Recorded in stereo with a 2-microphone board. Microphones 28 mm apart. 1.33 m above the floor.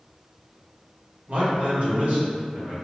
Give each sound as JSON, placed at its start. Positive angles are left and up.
{"t": 1.3, "sound": "a man speaking", "side_deg": -55, "distance_m": 1.0}